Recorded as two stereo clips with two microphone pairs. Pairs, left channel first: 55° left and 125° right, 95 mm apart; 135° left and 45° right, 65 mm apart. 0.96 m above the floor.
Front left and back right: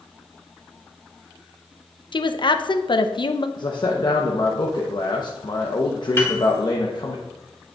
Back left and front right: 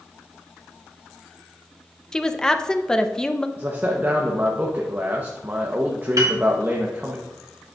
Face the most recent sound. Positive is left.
turn(degrees=-10)